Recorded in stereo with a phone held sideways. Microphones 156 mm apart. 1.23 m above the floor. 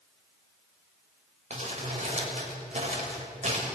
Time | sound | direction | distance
1.5 | crumpling | 45° right (ahead or behind) | 6 m